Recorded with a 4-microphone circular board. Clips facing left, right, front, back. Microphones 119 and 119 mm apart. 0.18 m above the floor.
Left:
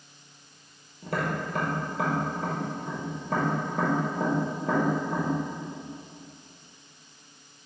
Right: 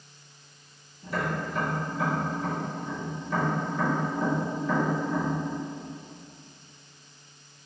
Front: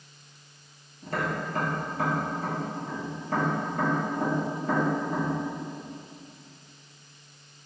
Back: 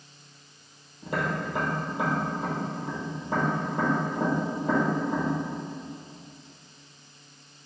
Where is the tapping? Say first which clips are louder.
Left 1 dB, back 1 dB; 105° left, 1.2 m.